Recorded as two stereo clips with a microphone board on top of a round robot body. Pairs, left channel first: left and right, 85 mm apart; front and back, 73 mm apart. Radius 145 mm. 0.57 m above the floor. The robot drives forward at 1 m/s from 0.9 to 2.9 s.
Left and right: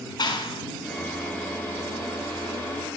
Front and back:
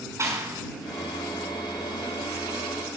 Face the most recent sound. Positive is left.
turn(degrees=140)